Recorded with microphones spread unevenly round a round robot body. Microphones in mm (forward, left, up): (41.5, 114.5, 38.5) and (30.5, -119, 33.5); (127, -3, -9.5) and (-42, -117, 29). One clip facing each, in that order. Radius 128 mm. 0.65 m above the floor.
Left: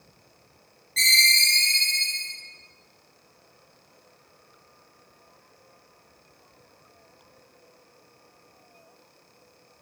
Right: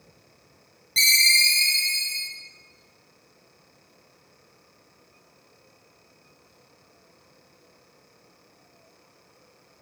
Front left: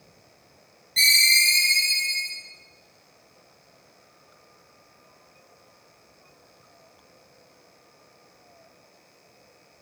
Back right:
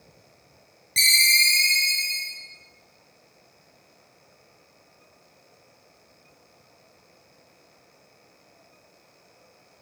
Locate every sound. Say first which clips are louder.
1.0 s a ringtone: even, even; 125° right, 1.4 m